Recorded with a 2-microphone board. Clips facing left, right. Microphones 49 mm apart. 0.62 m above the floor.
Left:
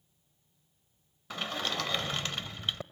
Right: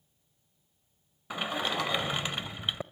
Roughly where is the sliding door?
Centre.